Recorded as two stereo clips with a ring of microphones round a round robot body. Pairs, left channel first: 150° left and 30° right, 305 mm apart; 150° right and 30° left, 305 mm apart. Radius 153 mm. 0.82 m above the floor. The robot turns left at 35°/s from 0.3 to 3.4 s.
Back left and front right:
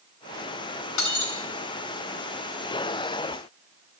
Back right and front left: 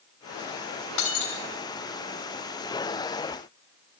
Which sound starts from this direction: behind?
Breaking glass, at 1.0 s.